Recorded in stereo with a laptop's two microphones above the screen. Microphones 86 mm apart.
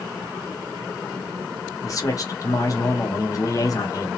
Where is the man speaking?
40° left (ahead or behind), 0.7 m.